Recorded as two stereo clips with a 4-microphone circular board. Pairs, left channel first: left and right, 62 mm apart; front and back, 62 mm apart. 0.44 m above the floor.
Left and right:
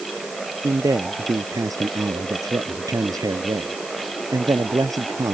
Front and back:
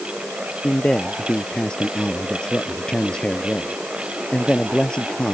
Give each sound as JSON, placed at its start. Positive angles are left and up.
{"t": 0.6, "sound": "a man speaking", "azimuth_deg": -75}